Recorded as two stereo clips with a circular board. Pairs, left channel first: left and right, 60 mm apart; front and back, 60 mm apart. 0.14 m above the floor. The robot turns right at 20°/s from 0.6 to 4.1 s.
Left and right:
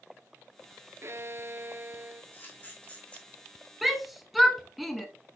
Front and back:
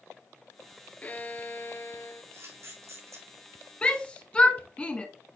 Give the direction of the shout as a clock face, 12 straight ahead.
12 o'clock.